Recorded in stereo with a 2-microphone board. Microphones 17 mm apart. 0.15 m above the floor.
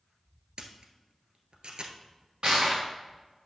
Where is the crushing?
55° right (ahead or behind), 3 m.